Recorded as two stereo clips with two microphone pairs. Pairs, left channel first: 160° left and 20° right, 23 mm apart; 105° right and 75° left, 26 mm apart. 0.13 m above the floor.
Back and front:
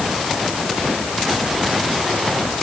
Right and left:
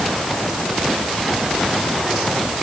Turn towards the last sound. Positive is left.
No sound to turn to.